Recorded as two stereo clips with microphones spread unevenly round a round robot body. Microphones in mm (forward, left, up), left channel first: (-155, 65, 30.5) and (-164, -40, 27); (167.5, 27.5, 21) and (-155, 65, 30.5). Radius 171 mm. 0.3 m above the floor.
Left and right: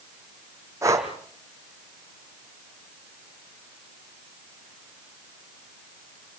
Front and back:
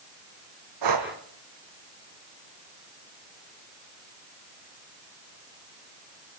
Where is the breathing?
155° right, 3 m.